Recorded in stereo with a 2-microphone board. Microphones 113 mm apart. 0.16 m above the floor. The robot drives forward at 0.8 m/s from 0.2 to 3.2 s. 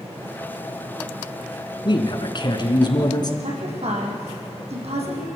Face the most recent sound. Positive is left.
turn(degrees=-70)  # may be behind; listen again after turning